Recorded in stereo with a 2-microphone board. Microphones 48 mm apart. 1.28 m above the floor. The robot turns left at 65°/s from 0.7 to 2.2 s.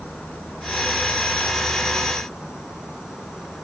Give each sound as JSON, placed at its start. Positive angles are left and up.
{"t": 0.0, "sound": "an insect", "azimuth_deg": 75, "distance_m": 2.0}